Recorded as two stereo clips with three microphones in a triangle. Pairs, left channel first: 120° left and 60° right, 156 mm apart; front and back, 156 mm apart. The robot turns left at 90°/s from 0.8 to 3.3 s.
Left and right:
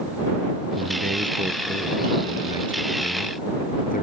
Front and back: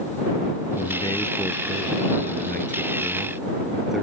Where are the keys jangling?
No keys jangling in this recording.